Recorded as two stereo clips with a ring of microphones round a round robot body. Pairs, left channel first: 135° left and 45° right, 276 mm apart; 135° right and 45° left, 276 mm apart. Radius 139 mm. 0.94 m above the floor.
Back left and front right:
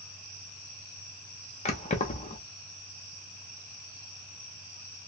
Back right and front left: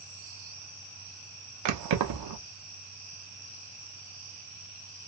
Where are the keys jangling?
65° left, 0.8 m.